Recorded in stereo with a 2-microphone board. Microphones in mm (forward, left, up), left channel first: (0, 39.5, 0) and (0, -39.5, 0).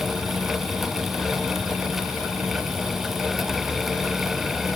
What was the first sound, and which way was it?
Only background noise.